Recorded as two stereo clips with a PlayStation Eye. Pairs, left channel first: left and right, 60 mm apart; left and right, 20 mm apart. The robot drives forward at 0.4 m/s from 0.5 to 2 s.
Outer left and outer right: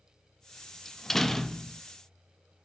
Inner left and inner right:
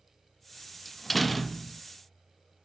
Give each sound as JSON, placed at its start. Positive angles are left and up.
{"t": 0.8, "sound": "a door slam", "side_deg": 5, "distance_m": 0.7}